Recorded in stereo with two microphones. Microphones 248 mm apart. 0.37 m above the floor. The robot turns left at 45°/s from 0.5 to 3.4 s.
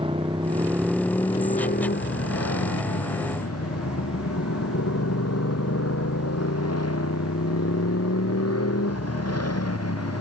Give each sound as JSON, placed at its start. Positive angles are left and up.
{"t": 0.0, "sound": "a motorcycle", "azimuth_deg": -160}